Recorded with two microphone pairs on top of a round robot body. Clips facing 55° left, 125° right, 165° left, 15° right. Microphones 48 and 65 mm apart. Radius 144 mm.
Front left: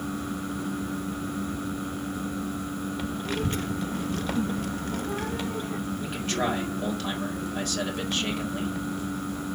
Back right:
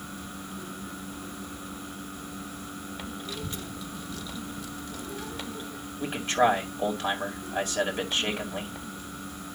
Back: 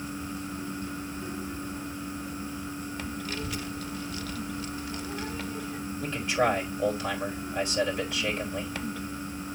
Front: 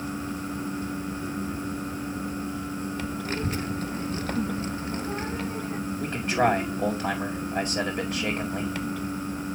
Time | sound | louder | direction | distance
3.2 | a child speaking | front left 8 dB, front 5 dB | 35° left | 0.5 m
6.0 | a man speaking | back right 7 dB, front 2 dB | 60° right | 2 m